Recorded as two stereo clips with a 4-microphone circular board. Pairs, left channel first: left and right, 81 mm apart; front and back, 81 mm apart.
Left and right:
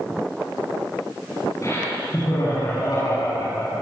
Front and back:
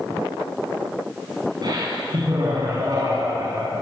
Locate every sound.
1.6 s laughter: 145° left, 8.5 m; by 3.8 s 135° left, 9 m